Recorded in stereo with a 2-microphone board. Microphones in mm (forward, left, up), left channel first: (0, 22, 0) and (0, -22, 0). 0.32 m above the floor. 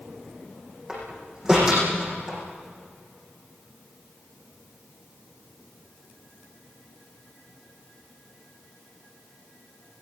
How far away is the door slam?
About 9.5 m.